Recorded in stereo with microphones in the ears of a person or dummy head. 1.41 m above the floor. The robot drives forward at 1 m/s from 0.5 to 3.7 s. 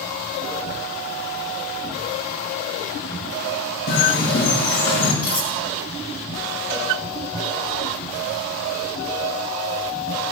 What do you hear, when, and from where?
3.9 s a bird: 60° left (ahead or behind), 6.5 m
5.2 s cutlery clinking: 40° left (ahead or behind), 3 m
6.7 s a cowbell: 50° right (ahead or behind), 5 m